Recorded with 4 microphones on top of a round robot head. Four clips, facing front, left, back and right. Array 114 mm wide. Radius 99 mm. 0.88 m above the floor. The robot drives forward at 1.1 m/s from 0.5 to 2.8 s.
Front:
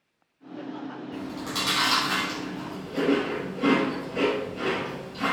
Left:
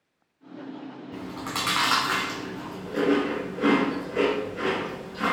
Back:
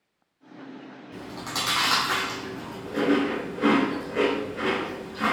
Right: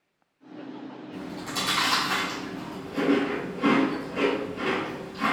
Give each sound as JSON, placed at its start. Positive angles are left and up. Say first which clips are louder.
{"t": 1.1, "sound": "chewing", "louder": "left 1 dB, back 1 dB", "azimuth_deg": 100, "distance_m": 3.0}